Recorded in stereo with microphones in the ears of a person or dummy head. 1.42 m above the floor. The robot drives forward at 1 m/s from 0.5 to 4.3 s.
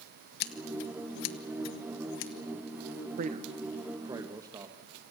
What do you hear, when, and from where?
0.4 s scissors: 55° left (ahead or behind), 1.8 m; by 2.3 s 65° left (ahead or behind), 1.7 m
3.2 s a man speaking: 45° right (ahead or behind), 0.7 m; by 4.8 s 15° right (ahead or behind), 1.7 m